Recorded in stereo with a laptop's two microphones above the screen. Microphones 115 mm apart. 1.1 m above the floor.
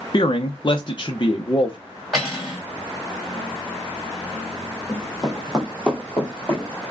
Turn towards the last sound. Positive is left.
turn(degrees=20)  # may be behind; listen again after turning